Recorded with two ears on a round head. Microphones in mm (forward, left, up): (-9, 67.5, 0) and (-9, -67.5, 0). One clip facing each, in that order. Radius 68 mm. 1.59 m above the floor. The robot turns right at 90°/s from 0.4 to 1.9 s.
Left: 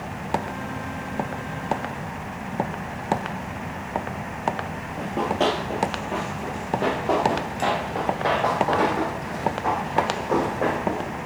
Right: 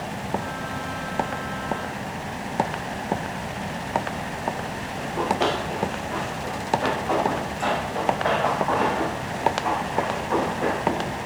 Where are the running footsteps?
35° left (ahead or behind), 2 m; by 11.2 s 70° left (ahead or behind), 4.5 m.